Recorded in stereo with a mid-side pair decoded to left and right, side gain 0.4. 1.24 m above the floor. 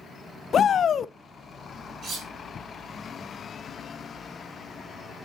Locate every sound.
0.5 s a shout: 55° left, 0.5 m
2.0 s cutlery clinking: 55° right, 4.5 m